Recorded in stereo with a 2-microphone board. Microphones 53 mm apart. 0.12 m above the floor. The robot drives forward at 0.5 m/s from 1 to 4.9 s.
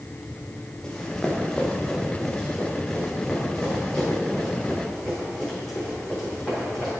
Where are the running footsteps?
10° left (ahead or behind), 2.5 m; by 6.9 s 5° left (ahead or behind), 8.5 m.